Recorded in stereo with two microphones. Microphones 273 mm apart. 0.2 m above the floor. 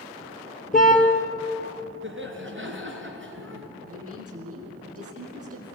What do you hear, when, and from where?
0.7 s a car horn: 30° left (ahead or behind), 2 m
2.0 s laughter: 45° right (ahead or behind), 3.5 m
3.8 s a woman speaking: 55° right (ahead or behind), 5.5 m